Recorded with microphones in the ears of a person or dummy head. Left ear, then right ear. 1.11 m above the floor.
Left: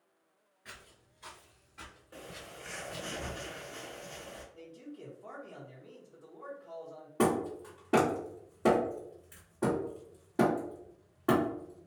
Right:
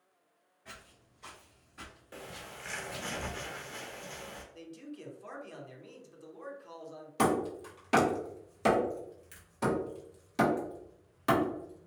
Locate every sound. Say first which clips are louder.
0.7 s footsteps: even; 25° left (ahead or behind), 1.3 m; by 3.1 s 40° right (ahead or behind), 1.4 m
2.1 s a bird: right 2 dB; 30° right (ahead or behind), 0.6 m
4.5 s a man speaking: right 1 dB; 75° right (ahead or behind), 0.9 m
7.2 s hammering: right 1 dB; 55° right (ahead or behind), 1.3 m